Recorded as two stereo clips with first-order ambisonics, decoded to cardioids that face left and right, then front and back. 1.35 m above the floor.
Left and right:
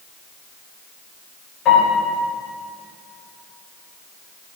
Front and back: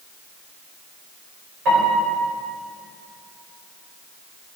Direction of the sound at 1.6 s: 140° left.